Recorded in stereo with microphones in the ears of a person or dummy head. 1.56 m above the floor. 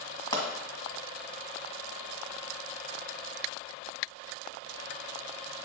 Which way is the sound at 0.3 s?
35° left (ahead or behind).